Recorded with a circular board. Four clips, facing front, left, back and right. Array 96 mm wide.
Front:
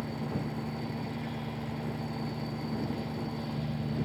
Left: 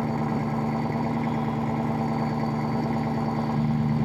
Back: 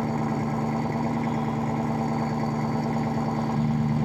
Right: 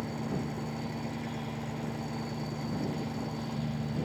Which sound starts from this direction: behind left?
An engine running, at 0.0 s.